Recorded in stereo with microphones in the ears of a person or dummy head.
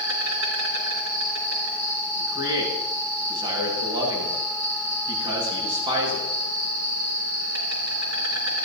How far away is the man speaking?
About 8.5 m.